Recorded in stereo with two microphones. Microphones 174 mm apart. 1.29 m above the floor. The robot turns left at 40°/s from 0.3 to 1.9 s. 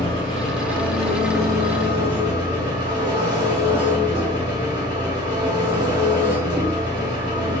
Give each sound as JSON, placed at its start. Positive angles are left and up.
{"t": 0.0, "sound": "an engine running", "azimuth_deg": 35, "distance_m": 1.4}